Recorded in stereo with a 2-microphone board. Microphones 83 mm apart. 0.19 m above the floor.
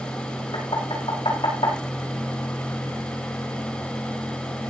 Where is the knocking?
75° left (ahead or behind), 8.5 m.